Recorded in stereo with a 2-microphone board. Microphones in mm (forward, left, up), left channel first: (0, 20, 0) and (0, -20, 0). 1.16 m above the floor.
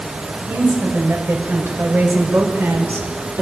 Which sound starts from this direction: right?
A woman speaking, at 0.5 s.